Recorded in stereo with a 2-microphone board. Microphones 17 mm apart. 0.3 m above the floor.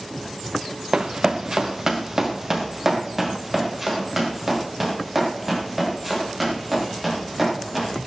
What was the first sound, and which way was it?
Running footsteps, 55° right (ahead or behind).